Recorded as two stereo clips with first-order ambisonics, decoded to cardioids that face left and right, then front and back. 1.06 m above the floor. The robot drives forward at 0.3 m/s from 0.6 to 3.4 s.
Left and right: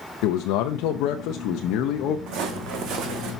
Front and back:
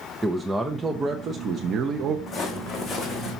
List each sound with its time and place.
0.2 s a man speaking: 100° left, 0.7 m; by 2.2 s 130° left, 0.9 m
2.3 s footsteps: 80° right, 2.5 m; by 3.3 s 85° right, 3 m